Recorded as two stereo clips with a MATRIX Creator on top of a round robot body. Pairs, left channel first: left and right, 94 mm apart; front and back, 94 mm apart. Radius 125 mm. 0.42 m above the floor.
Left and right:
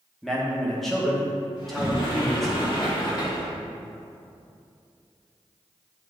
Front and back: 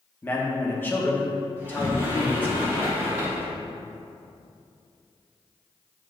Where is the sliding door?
115° left, 2.5 m.